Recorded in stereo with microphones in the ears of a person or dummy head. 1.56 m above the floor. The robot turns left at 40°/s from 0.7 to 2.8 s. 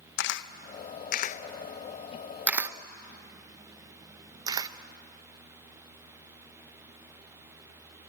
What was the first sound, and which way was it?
A camera shutter, 60° left (ahead or behind).